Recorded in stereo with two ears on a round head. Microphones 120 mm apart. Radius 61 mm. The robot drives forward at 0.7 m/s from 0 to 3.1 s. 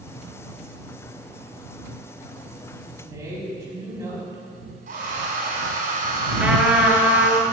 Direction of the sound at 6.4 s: 10° right (ahead or behind).